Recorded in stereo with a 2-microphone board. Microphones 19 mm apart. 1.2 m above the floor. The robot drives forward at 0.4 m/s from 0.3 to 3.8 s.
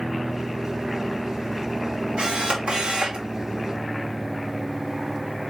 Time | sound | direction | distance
2.2 | a camera shutter | 60° right (ahead or behind) | 1.6 m